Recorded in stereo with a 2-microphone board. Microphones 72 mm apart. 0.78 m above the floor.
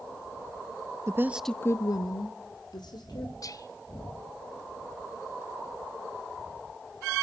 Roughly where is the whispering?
Left.